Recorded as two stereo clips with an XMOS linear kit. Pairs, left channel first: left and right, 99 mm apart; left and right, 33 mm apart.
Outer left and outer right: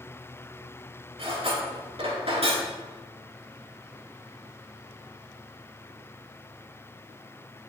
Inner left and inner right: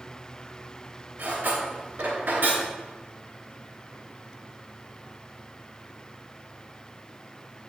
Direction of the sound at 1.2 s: 80° right.